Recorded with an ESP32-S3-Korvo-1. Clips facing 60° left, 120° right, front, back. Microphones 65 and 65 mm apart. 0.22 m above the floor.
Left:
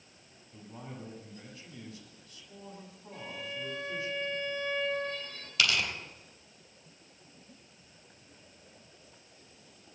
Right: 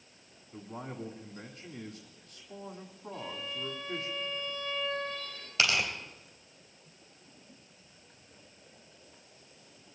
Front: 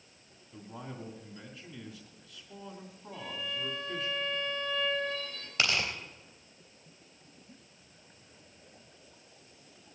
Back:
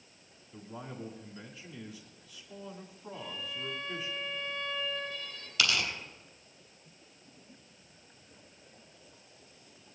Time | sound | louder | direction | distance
0.5 | a man speaking | right 4 dB, even | 80° right | 1.9 m
3.1 | a violin | even, front 3 dB | 20° left | 5 m
5.6 | tearing paper | right 1 dB, even | 55° right | 3.5 m